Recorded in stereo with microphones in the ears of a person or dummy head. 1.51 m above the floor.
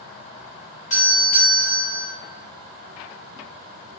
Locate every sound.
0.9 s a doorbell: 40° left (ahead or behind), 0.8 m